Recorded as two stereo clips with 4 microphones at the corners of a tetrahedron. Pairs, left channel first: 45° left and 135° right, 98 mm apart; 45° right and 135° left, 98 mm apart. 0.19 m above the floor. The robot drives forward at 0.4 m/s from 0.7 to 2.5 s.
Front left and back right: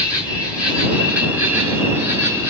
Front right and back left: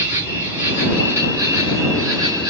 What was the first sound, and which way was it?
An insect, 160° left.